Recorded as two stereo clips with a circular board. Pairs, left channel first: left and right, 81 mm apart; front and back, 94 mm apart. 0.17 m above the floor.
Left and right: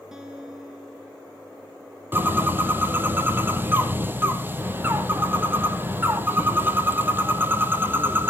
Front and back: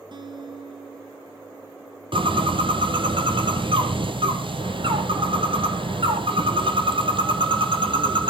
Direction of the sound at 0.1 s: 170° right.